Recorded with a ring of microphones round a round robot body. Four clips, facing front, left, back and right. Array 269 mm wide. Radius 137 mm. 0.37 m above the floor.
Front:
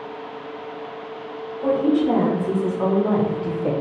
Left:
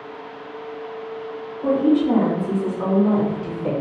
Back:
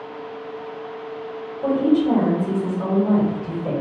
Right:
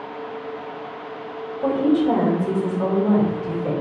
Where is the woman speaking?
85° right, 1.2 m; by 3.7 s 20° left, 1.0 m.